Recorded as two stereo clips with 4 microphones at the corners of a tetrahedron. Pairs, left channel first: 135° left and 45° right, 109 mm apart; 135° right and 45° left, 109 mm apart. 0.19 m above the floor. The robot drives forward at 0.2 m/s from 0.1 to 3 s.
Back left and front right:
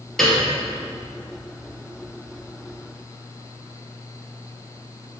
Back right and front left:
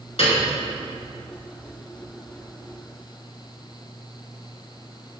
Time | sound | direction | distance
0.2 | a piano | 140° right | 3 m